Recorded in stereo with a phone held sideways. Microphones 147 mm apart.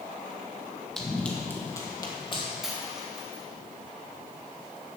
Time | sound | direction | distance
1.0 | running footsteps | centre (ahead or behind) | 1.7 m
2.6 | a dropped coin | centre (ahead or behind) | 1.9 m